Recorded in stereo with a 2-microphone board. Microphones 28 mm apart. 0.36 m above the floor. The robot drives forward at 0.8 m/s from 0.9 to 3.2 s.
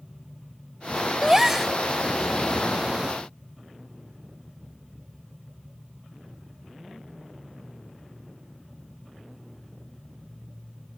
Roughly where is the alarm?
I don't hear an alarm.